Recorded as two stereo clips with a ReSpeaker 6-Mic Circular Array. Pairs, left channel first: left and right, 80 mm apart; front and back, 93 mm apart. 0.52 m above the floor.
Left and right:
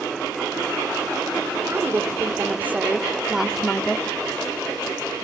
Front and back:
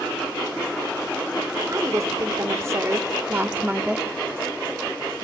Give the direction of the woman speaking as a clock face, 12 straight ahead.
5 o'clock.